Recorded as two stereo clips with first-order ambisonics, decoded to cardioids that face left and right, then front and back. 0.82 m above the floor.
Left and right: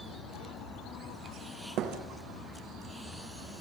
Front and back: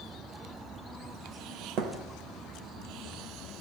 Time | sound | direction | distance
1.8 | a thud | 135° right | 3 m